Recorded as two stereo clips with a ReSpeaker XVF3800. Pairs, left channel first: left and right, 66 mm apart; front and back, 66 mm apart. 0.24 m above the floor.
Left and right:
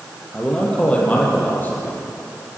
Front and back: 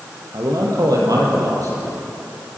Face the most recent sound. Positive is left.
turn(degrees=135)